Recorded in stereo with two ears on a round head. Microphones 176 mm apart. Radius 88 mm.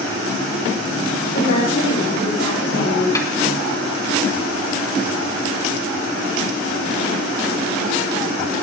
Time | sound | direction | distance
1.3 | a woman speaking | 55° left (ahead or behind) | 8 m
3.1 | a snare drum | 15° left (ahead or behind) | 3 m